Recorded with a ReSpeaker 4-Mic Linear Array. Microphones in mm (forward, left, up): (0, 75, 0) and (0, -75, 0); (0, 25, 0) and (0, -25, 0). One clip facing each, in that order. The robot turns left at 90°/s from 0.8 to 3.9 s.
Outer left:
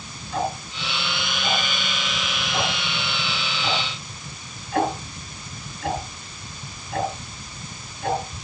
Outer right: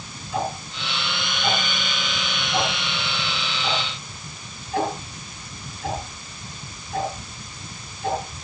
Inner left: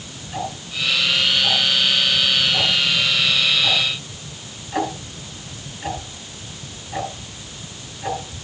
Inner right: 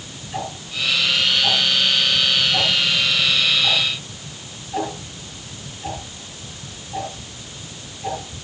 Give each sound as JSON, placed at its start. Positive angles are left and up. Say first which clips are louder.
{"t": 0.3, "sound": "ticking", "louder": "outer left 1 dB, inner left 1 dB", "side_deg": -5, "distance_m": 4.5}